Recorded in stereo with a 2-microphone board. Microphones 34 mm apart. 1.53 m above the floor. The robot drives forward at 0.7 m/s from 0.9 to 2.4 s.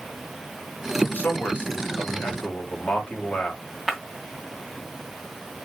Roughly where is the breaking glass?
Centre.